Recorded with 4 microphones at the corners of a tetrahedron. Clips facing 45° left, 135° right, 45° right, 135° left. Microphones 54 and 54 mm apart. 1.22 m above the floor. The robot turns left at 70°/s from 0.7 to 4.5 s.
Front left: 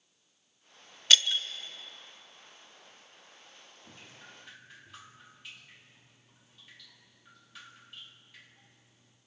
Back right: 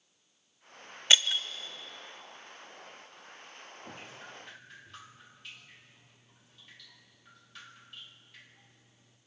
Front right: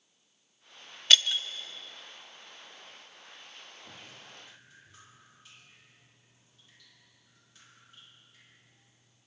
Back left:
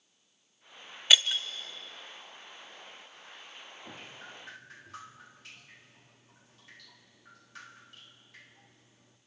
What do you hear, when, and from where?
1.1 s breaking glass: 155° right, 0.9 m; by 1.4 s straight behind, 0.9 m
3.8 s dripping: straight behind, 2 m; by 9.2 s 135° left, 2 m